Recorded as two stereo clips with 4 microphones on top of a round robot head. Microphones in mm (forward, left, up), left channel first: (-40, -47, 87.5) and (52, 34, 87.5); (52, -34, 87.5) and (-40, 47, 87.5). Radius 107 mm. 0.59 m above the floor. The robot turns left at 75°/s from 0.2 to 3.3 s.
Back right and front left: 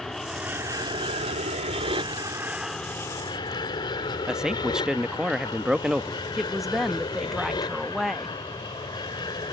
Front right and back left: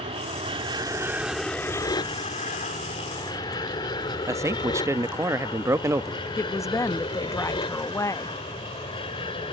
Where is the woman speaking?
45° right.